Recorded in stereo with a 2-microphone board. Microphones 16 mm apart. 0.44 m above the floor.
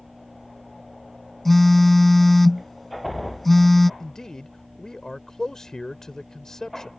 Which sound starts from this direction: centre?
A phone buzzing, at 1.4 s.